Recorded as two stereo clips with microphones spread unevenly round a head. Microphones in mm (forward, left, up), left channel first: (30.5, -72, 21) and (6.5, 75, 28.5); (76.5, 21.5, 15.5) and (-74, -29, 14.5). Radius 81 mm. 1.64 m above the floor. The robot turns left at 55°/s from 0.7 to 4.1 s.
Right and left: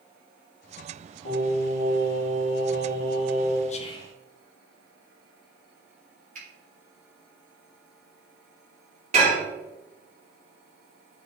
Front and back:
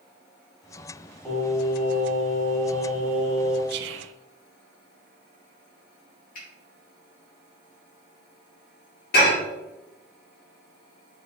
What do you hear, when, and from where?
1.2 s singing: 65° right, 2 m; by 3.6 s 170° left, 2 m
3.7 s whispering: 130° right, 0.7 m; by 4.1 s 155° right, 0.7 m
6.3 s a finger snap: 60° left, 3 m
9.1 s dishes clattering: 50° left, 2.5 m